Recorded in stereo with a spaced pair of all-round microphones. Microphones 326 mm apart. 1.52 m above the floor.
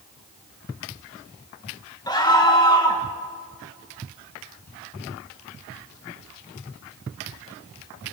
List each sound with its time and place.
2.1 s a scream: 10° left (ahead or behind), 1.8 m